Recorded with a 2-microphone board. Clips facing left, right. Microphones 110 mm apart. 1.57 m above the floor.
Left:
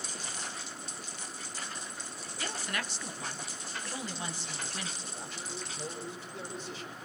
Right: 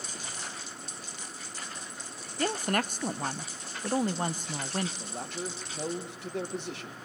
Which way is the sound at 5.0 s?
75° right (ahead or behind).